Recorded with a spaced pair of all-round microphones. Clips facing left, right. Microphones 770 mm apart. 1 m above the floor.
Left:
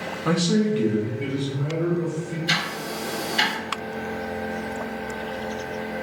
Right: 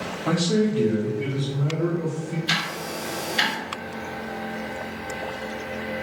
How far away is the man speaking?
About 1.0 m.